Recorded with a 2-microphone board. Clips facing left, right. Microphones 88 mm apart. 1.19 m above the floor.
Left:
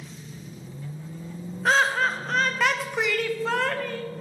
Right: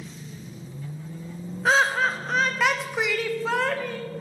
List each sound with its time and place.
1.6 s laughter: 5° right (ahead or behind), 0.7 m